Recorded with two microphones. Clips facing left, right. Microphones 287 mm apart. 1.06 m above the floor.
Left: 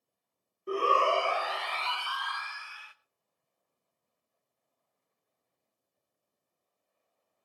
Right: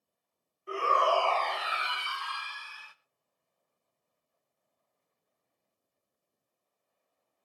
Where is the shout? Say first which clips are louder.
Left 2 dB; 45° left (ahead or behind), 0.9 m; by 2.9 s 45° right (ahead or behind), 1.3 m.